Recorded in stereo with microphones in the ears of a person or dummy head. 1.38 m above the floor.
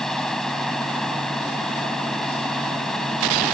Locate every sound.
0.0 s a machine running: 5° left (ahead or behind)